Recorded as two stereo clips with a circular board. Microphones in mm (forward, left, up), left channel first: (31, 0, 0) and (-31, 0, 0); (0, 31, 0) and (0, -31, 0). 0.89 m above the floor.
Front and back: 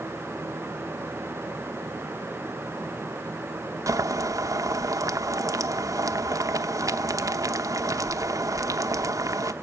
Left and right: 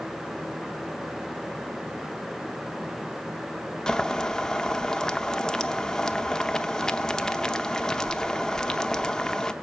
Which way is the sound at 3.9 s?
170° left.